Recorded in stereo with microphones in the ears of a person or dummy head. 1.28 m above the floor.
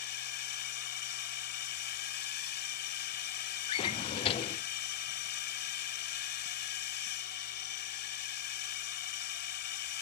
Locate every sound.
0.0 s a drone: 55° left (ahead or behind)
3.7 s a drawer: 30° left (ahead or behind)